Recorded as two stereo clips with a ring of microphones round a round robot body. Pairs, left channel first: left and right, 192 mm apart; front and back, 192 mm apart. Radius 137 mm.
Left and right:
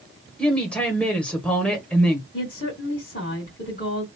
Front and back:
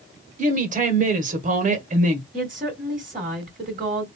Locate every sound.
0.4 s a woman speaking: 175° left, 1.3 m
2.3 s a woman speaking: 140° left, 3 m